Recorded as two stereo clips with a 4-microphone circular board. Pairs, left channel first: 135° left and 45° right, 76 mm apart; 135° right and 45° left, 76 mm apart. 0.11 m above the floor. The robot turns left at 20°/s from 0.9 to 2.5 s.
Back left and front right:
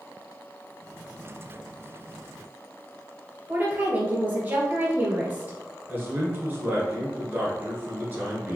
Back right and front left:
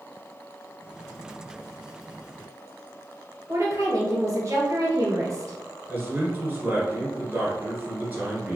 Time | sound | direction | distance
3.5 | a woman speaking | 15° left | 1.8 m
5.9 | a man speaking | straight ahead | 1.8 m